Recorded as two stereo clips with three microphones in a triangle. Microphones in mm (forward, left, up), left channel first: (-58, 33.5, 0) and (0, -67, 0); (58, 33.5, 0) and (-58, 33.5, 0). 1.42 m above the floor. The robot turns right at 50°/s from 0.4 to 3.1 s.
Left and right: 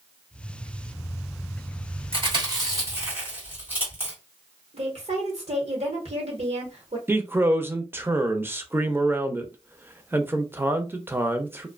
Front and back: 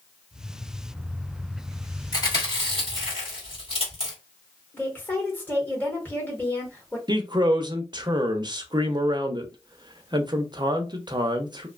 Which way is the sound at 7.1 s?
130° right.